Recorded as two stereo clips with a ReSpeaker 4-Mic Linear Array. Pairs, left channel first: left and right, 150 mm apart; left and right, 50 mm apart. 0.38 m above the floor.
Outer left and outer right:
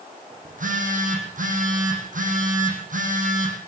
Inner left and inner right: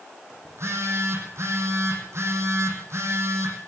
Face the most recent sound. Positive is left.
turn(degrees=-60)  # may be behind; listen again after turning